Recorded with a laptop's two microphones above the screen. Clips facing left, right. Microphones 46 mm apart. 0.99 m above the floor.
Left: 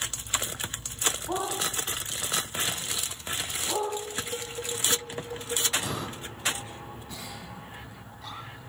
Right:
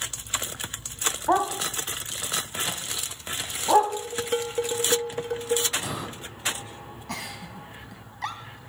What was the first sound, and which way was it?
A dog barking, 75° right (ahead or behind).